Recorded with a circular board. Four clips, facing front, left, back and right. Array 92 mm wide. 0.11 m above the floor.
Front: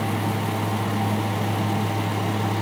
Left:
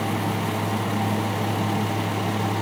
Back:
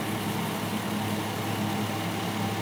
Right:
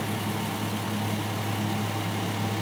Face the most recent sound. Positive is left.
No sound to turn to.